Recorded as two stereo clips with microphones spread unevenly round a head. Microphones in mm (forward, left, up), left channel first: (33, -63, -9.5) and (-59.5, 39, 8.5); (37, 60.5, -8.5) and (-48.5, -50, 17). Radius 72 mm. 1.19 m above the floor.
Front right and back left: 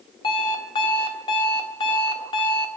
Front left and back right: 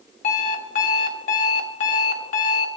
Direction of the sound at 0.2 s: 15° left.